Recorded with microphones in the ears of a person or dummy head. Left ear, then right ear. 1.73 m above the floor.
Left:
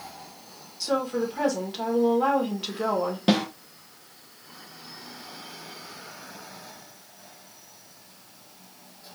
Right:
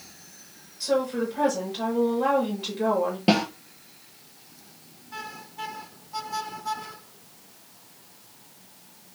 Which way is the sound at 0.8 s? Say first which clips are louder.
Right 1 dB; 50° left (ahead or behind).